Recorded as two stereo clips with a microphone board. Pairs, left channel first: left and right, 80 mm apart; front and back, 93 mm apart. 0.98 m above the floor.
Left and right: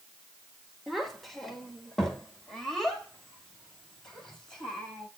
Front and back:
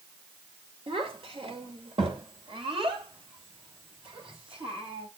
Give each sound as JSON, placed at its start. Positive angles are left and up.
{"t": 0.9, "sound": "a child speaking", "azimuth_deg": 180, "distance_m": 1.8}